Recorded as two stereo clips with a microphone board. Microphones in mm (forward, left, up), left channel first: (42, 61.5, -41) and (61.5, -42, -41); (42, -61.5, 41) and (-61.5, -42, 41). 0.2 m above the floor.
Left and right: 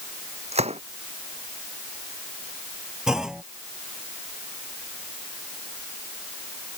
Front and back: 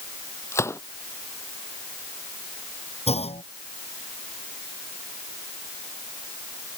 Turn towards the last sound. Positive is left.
turn(degrees=5)